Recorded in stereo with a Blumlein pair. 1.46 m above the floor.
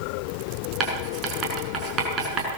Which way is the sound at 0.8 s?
30° right.